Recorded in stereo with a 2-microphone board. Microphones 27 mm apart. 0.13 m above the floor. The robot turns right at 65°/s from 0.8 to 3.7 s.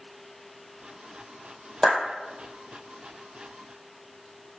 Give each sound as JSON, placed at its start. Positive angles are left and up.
{"t": 1.8, "sound": "a clap", "side_deg": 5, "distance_m": 3.0}